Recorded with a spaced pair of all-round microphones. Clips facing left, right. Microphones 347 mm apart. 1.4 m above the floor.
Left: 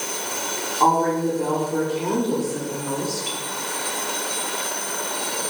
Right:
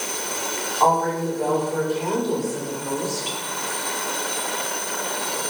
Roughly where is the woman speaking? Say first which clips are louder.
Left 2 dB; left.